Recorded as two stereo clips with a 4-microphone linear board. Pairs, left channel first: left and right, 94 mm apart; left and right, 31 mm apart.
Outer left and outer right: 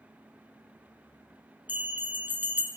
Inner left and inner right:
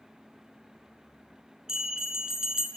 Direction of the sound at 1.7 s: 20° right (ahead or behind).